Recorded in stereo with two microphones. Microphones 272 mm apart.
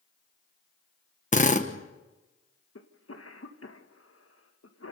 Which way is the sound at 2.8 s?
55° left (ahead or behind).